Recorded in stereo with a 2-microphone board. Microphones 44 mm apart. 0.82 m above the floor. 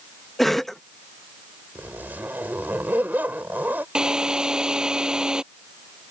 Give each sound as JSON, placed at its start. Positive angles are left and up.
{"t": 0.4, "sound": "a cough", "side_deg": 5}
{"t": 1.8, "sound": "a zipper", "side_deg": -45}
{"t": 4.0, "sound": "a drill", "side_deg": -15}